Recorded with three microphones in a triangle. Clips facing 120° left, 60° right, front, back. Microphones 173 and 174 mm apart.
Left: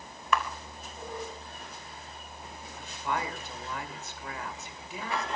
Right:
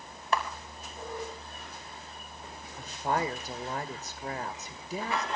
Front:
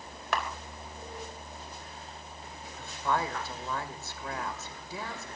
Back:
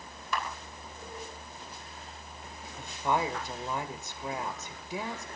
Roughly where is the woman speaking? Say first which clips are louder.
Right 3 dB, back 1 dB; right.